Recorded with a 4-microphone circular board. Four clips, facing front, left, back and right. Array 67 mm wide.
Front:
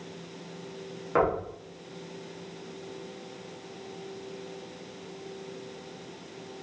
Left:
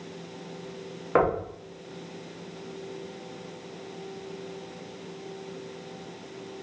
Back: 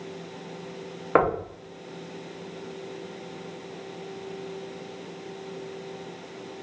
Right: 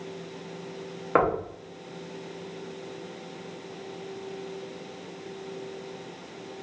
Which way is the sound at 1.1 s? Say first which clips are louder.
Even, back 4 dB; 170° right.